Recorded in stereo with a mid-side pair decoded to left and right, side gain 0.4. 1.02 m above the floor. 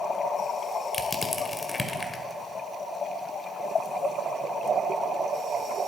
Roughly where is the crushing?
Ahead left.